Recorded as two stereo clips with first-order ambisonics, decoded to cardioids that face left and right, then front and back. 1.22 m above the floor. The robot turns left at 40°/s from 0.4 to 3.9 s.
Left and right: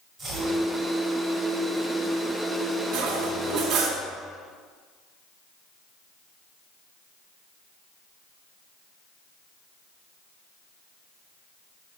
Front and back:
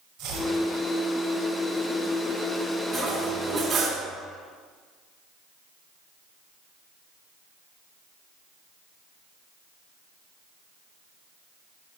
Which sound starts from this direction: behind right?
Chopping, at 0.2 s.